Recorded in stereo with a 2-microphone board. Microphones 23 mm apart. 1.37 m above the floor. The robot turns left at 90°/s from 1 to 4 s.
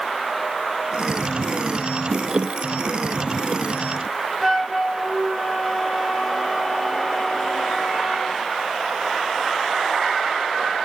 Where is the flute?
5° left (ahead or behind), 2 m.